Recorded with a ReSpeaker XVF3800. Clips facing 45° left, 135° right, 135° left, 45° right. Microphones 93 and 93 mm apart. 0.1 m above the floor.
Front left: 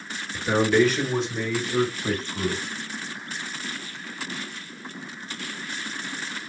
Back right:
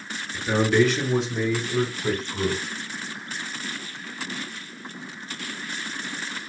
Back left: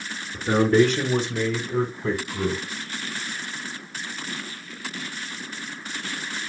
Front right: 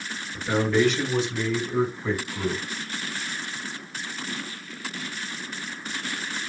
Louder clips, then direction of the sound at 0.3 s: Even, back left 4 dB; 125° left.